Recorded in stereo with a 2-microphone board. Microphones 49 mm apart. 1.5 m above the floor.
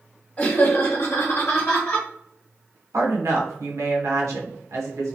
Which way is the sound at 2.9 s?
85° right.